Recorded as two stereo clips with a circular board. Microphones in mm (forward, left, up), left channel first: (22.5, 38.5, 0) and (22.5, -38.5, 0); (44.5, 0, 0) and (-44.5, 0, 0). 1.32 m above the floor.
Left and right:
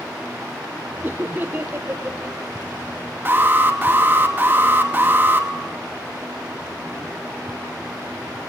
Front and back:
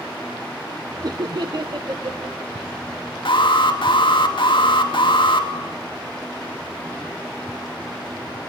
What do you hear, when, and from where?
1.0 s laughter: 145° right, 0.8 m; by 2.9 s 150° right, 2 m
3.2 s an alarm: 25° right, 2.5 m